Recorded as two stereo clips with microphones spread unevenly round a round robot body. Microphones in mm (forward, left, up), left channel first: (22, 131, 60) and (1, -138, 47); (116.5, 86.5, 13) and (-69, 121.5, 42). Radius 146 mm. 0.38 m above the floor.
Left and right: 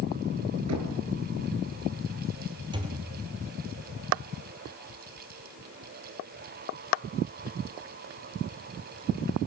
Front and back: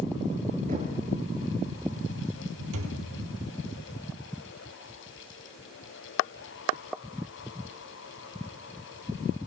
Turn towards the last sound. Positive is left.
turn(degrees=-170)